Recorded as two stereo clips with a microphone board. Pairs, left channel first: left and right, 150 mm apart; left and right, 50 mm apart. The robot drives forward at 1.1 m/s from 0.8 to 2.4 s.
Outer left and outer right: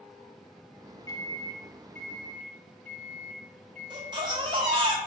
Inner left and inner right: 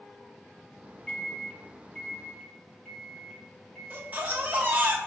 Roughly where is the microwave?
Left.